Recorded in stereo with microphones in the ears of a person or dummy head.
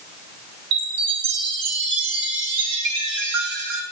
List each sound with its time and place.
0.7 s a chime: 70° right (ahead or behind), 3 m